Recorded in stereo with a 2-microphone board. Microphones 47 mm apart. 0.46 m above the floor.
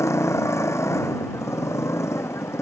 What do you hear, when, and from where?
0.0 s a motorcycle: 80° left